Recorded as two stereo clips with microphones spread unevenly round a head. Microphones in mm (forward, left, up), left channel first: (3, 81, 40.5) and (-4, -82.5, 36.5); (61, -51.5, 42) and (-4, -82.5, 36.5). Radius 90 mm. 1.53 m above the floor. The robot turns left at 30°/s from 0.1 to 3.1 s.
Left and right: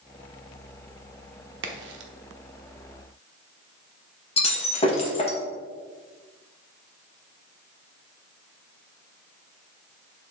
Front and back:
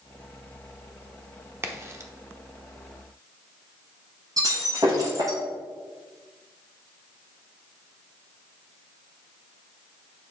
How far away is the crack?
About 0.9 m.